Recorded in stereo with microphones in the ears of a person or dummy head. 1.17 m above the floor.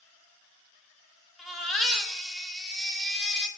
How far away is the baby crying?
About 0.6 m.